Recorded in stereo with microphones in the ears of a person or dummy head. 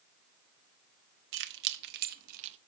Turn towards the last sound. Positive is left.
turn(degrees=-40)  # may be behind; listen again after turning